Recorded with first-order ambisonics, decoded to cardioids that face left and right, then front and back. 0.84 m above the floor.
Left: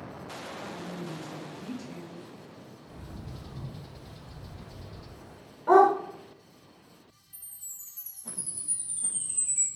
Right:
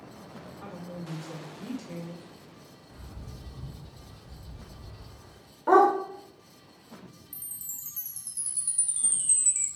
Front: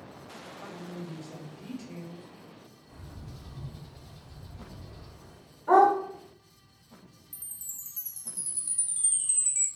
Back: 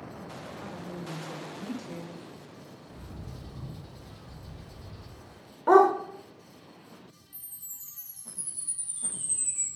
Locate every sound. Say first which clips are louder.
0.6 s a woman speaking: left 3 dB, even; 145° right, 1.7 m
2.9 s a bird: left 3 dB, back 3 dB; 110° left, 0.7 m
5.7 s a dog barking: left 1 dB, back 1 dB; 165° right, 0.9 m
7.3 s a chime: right 3 dB, front 6 dB; 60° right, 0.8 m